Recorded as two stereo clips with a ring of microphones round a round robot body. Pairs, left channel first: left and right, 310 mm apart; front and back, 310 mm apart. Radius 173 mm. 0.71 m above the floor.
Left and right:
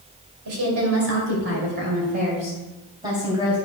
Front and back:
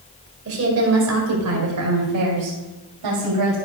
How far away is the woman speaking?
About 2.5 m.